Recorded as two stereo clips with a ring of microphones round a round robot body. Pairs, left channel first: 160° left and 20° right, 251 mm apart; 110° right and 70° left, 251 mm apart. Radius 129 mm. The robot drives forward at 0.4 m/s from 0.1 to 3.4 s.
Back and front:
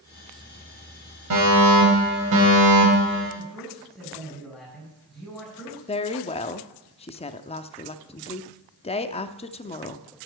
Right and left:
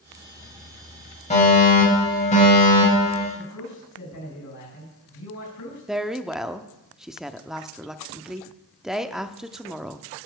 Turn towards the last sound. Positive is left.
turn(degrees=155)